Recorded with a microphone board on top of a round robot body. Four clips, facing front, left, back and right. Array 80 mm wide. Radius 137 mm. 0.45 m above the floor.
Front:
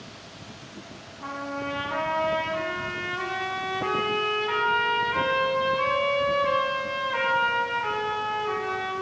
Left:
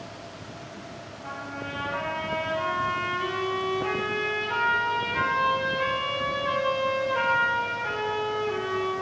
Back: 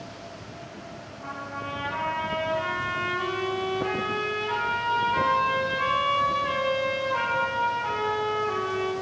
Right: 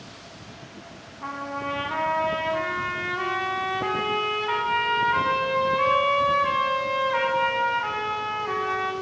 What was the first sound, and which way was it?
A trumpet, 75° right.